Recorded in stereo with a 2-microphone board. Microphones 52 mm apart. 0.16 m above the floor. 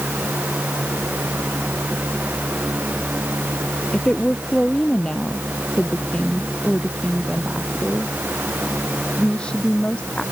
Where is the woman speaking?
20° left (ahead or behind).